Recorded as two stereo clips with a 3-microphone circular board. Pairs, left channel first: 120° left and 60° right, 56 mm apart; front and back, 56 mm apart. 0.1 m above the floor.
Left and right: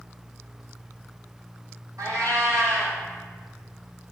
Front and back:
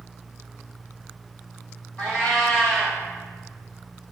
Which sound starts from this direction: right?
A cat meowing, at 2.0 s.